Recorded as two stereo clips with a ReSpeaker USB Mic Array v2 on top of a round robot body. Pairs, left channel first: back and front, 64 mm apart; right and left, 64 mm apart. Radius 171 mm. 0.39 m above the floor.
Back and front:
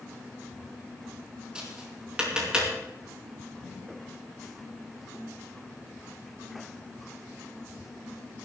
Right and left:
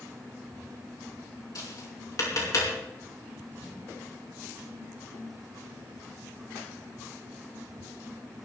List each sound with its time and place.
1.6 s tapping: 75° right, 5 m